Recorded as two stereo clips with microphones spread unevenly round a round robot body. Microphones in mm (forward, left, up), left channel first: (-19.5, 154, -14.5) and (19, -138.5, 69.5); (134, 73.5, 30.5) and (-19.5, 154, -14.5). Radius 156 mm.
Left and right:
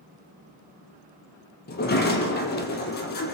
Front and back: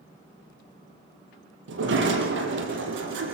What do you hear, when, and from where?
1.7 s a sliding door: 160° left, 4 m